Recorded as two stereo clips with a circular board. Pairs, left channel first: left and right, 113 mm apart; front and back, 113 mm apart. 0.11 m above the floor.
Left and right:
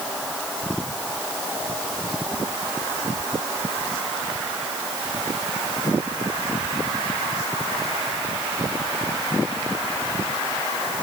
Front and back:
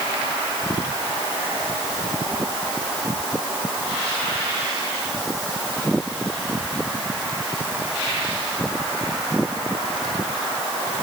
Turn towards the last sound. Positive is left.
No sound to turn to.